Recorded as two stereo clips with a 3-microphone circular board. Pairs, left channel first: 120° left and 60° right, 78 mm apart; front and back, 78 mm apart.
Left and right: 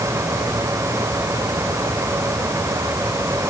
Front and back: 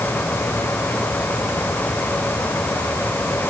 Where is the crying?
I don't hear crying.